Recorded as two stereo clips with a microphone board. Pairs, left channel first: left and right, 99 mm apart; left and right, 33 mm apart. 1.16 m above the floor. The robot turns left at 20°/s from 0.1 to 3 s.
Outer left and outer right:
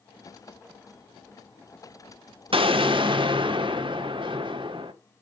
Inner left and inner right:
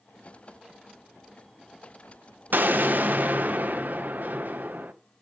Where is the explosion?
65° right (ahead or behind), 1.7 m; by 4.9 s 55° right (ahead or behind), 1.7 m.